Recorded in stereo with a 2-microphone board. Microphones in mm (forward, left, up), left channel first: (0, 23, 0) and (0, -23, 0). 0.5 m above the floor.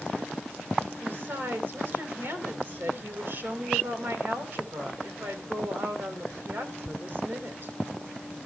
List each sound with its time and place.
1.0 s a woman speaking: 50° right (ahead or behind), 2.5 m